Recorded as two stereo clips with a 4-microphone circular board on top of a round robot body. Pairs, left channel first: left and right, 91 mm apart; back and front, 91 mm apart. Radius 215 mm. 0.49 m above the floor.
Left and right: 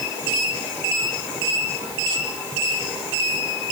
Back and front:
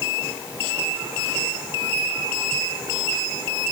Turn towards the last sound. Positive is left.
No sound to turn to.